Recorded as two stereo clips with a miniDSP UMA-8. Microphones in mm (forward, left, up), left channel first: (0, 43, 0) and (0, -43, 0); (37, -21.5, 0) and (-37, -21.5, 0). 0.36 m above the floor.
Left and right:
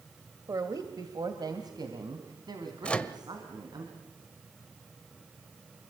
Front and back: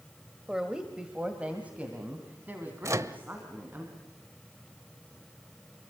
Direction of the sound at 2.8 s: 160° left.